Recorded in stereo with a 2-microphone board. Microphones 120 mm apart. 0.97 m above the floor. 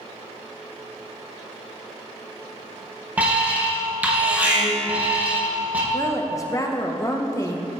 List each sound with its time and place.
3.2 s an alarm: 15° right (ahead or behind), 1.3 m
5.9 s a woman speaking: 25° left (ahead or behind), 0.6 m